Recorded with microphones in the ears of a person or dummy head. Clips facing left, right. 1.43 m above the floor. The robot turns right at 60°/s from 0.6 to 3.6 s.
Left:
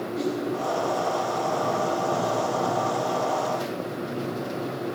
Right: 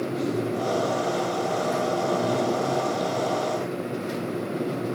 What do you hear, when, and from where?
0.1 s a whoosh: 5° left (ahead or behind), 2.5 m